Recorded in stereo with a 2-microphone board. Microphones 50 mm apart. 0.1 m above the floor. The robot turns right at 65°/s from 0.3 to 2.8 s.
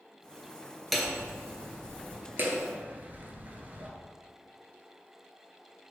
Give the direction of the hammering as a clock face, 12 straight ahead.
6 o'clock.